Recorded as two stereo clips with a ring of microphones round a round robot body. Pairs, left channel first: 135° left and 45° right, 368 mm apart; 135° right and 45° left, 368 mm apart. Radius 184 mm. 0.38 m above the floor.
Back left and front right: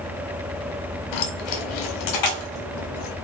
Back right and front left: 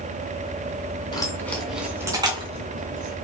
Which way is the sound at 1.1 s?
145° left.